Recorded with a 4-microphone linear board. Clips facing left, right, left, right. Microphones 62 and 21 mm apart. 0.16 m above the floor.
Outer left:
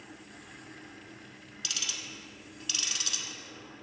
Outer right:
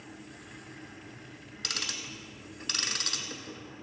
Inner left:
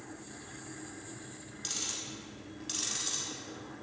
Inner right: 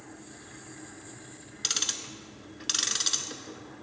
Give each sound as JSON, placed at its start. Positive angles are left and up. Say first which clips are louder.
{"t": 1.6, "sound": "ticking", "louder": "outer right 2 dB, inner right 7 dB", "side_deg": -55, "distance_m": 0.8}